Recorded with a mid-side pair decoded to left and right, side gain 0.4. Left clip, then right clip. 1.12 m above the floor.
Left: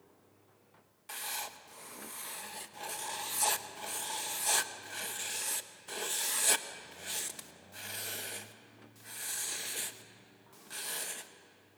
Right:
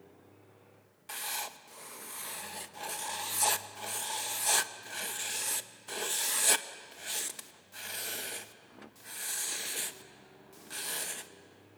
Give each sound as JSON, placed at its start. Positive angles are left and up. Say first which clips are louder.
{"t": 1.1, "sound": "writing", "louder": "right 2 dB", "azimuth_deg": -15, "distance_m": 1.0}